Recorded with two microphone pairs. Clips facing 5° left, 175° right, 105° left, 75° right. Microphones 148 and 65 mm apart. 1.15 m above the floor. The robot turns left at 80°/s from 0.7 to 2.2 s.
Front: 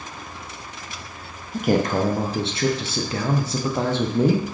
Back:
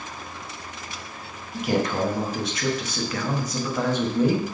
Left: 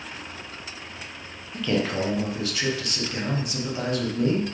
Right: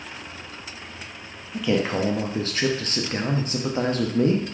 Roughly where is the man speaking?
Ahead.